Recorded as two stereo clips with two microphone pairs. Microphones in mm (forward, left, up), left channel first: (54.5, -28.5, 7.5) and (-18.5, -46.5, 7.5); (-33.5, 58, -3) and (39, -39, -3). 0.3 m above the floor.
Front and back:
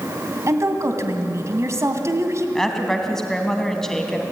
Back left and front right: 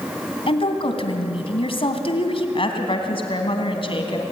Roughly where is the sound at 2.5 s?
Left.